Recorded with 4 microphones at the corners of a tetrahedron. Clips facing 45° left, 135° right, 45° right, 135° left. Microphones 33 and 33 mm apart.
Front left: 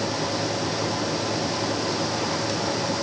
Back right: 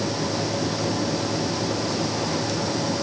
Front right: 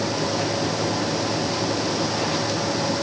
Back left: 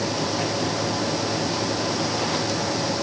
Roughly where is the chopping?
No chopping in this recording.